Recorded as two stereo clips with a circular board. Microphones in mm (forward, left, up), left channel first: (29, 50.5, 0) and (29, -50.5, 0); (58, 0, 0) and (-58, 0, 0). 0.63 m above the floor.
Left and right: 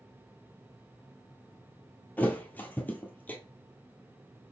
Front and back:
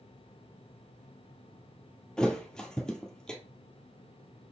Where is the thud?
70° left, 0.6 m.